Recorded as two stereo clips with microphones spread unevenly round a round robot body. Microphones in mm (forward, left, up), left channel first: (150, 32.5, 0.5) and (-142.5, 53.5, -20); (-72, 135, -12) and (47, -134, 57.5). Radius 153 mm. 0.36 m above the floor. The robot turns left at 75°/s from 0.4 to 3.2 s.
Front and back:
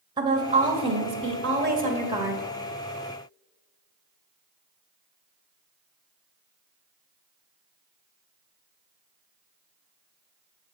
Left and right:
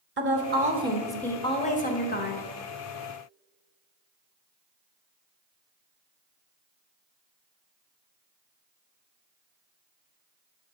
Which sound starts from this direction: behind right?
A woman speaking, at 0.2 s.